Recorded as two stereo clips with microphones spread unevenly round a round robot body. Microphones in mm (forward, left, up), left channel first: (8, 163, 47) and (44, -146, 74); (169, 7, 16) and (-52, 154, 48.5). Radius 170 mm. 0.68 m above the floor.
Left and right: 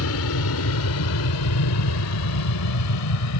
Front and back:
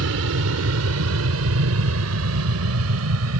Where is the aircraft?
125° left; by 3.4 s 120° left.